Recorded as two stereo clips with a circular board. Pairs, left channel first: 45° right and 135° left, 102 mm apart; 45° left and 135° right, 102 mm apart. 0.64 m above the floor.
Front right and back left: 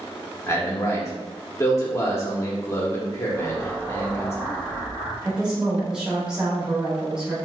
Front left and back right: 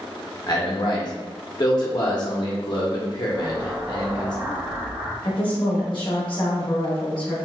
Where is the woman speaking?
55° left, 1.0 m.